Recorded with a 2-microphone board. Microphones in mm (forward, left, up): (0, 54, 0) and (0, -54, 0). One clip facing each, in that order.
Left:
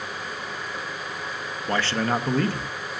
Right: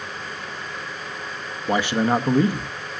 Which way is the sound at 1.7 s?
15° right (ahead or behind).